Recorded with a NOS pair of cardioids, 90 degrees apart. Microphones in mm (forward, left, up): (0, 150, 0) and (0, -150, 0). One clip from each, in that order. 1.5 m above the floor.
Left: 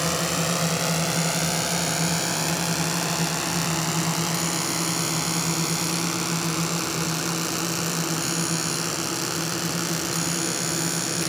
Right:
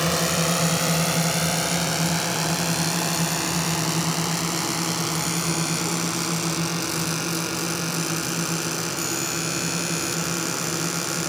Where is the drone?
20° right; by 11.3 s 5° left.